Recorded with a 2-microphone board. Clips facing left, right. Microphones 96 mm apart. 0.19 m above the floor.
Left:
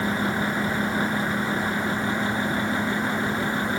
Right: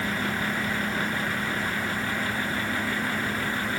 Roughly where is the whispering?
I don't hear whispering.